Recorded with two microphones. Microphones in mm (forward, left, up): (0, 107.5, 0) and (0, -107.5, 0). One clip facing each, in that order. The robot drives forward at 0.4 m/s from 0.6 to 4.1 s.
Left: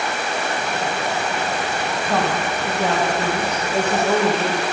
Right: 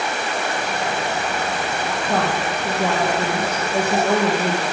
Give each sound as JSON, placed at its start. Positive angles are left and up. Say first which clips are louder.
{"t": 2.1, "sound": "a woman speaking", "louder": "even", "side_deg": -5, "distance_m": 2.5}